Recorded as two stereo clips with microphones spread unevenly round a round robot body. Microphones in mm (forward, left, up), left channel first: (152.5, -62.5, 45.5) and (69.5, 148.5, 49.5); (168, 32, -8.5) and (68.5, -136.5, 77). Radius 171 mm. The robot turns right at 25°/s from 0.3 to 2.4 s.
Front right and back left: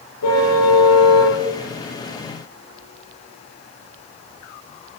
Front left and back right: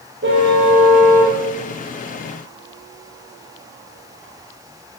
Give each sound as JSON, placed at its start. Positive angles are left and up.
{"t": 0.2, "sound": "a car horn", "azimuth_deg": -100, "distance_m": 9.0}